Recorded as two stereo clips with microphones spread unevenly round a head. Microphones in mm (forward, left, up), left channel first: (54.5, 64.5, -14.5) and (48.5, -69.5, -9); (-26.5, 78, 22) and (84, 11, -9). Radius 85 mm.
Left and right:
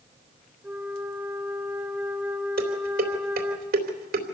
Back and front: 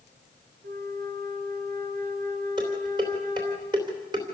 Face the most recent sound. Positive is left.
turn(degrees=-100)